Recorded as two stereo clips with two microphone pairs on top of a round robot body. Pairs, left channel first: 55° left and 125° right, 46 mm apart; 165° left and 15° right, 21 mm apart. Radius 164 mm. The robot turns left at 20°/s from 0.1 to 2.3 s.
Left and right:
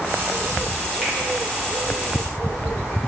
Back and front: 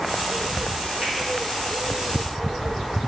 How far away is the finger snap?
About 1.6 m.